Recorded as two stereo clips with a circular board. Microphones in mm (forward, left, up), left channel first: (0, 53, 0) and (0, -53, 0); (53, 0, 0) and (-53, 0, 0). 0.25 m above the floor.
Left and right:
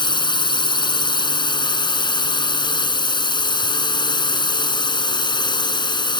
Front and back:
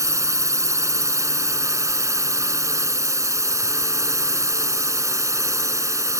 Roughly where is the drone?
Behind left.